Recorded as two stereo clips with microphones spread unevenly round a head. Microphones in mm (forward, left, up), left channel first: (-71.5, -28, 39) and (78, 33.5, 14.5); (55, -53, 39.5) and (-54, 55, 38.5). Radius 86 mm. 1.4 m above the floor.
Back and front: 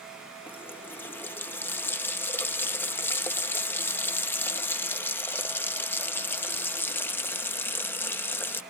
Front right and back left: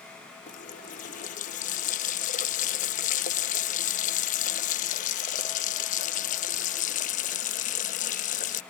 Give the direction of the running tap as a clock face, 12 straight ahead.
3 o'clock.